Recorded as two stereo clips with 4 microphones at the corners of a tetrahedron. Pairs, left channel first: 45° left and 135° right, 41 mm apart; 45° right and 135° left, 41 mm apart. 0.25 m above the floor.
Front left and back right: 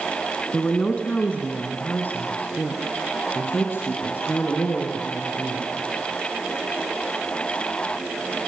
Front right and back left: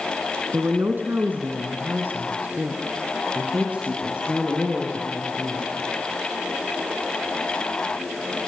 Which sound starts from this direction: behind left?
A woman speaking, at 0.5 s.